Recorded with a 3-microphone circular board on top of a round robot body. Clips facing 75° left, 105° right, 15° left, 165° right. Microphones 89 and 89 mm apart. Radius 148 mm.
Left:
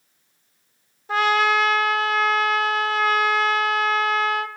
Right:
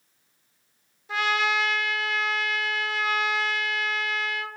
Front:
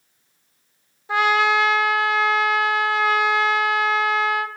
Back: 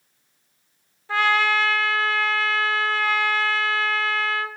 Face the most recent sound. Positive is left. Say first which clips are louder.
# left 6 dB, front 2 dB
turn(degrees=80)